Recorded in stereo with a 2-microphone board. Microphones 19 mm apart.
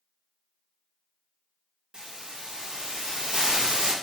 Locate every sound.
1.9 s a hiss: 45° right (ahead or behind), 0.5 m